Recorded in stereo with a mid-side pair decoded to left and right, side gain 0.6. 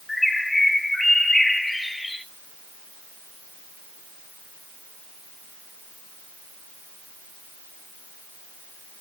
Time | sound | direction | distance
0.1 | a bird | 10° left | 2 m